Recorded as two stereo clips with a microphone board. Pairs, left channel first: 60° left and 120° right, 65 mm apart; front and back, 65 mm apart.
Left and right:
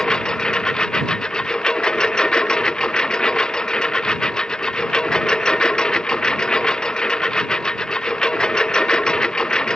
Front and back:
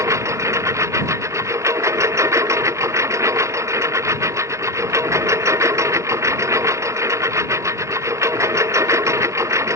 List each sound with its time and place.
0.0 s a lawn mower: 140° left